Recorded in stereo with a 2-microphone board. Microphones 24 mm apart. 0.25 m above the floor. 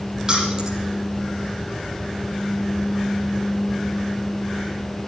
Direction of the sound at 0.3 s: 30° right (ahead or behind).